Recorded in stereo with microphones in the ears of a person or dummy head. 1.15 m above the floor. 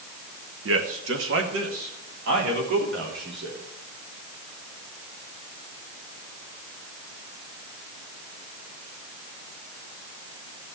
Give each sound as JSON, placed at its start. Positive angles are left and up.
{"t": 0.7, "sound": "a man speaking", "side_deg": -70, "distance_m": 1.7}